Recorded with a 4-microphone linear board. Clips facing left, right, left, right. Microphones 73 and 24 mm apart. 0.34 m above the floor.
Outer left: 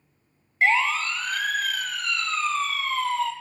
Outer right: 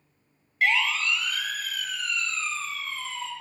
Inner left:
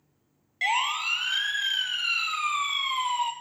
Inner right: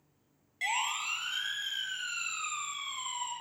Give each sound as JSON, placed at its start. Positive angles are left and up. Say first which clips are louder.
{"t": 0.6, "sound": "a siren", "louder": "outer left 3 dB, inner left 7 dB", "side_deg": 30, "distance_m": 3.0}